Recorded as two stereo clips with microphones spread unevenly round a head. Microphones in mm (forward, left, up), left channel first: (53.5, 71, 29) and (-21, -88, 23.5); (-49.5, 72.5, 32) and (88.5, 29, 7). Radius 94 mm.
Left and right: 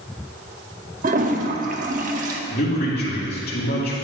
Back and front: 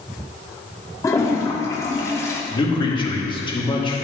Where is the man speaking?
105° left, 2.5 m.